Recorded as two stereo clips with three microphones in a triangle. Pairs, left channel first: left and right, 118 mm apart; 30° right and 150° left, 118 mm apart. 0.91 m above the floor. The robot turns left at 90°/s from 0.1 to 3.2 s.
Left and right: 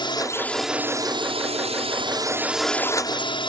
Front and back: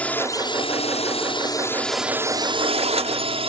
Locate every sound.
0.0 s a drone: 45° left; by 3.5 s 130° left